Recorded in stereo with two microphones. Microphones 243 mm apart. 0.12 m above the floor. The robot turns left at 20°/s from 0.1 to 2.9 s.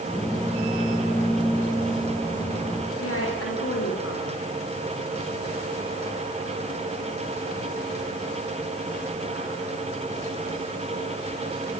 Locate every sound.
3.0 s a woman speaking: 75° left (ahead or behind), 9.5 m